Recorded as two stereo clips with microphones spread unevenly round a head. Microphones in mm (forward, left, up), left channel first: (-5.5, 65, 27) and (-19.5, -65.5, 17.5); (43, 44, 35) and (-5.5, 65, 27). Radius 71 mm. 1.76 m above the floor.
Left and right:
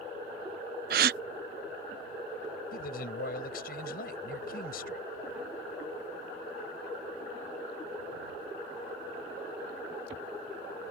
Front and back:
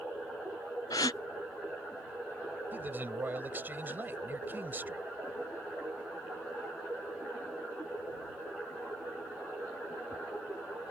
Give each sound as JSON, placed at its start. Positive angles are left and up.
{"t": 0.9, "sound": "a gasp", "azimuth_deg": -75}
{"t": 2.7, "sound": "a man speaking", "azimuth_deg": 100}